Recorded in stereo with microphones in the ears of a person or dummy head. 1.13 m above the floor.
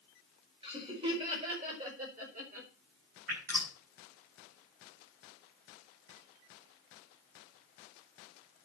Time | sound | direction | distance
0.6 | laughter | 35° right (ahead or behind) | 5 m
3.3 | dripping | 50° right (ahead or behind) | 6.5 m